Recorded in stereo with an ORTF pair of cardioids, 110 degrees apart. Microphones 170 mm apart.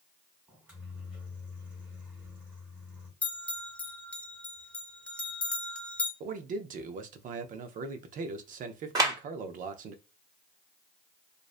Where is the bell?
10° left, 0.7 m.